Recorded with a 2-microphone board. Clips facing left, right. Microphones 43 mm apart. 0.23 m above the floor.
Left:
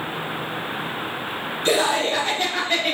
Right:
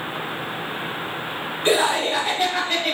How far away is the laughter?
About 1.1 m.